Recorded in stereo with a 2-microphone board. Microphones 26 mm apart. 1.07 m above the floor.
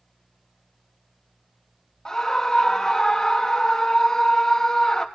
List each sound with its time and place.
2.0 s a scream: 30° left (ahead or behind), 1.4 m